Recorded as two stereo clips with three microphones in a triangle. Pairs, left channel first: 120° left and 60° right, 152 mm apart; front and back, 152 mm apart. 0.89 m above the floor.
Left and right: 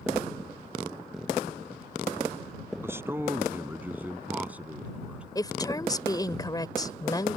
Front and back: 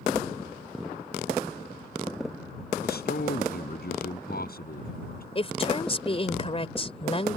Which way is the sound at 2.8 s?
15° left.